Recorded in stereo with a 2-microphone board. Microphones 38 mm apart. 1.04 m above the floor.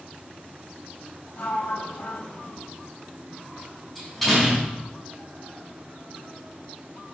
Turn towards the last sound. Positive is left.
turn(degrees=0)  # may be behind; listen again after turning